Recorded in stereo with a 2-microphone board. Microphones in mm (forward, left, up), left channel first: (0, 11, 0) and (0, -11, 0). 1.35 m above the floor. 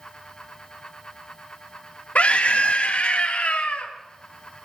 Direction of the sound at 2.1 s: 70° left (ahead or behind).